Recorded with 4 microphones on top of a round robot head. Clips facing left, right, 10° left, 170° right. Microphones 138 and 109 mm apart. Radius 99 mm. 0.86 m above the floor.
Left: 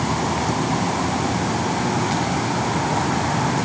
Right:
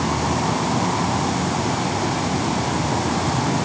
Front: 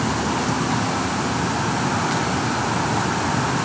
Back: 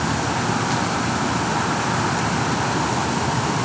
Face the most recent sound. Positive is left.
No sound to turn to.